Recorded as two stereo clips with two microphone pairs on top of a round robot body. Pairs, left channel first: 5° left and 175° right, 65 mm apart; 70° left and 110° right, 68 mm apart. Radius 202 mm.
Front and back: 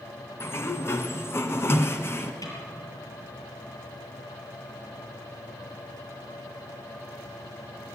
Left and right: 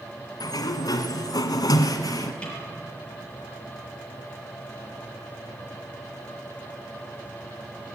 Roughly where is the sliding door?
Ahead left.